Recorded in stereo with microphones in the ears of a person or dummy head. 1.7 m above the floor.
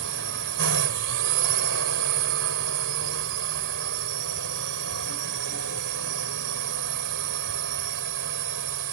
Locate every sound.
0.0 s a drone: 65° right (ahead or behind)